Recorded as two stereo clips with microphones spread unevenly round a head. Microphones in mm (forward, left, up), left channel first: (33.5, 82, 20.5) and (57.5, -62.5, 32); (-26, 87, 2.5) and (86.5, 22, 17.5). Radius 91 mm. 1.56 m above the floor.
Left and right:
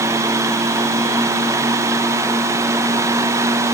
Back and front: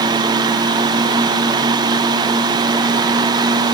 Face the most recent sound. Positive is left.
No sound to turn to.